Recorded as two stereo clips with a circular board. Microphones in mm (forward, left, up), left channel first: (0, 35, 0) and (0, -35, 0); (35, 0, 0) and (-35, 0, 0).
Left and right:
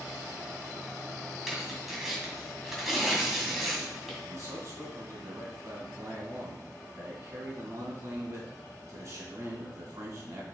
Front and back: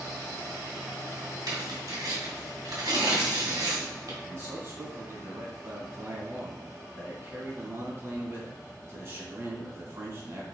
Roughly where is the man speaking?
Behind right.